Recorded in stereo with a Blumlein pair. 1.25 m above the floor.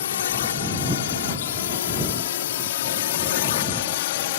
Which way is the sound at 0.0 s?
60° left.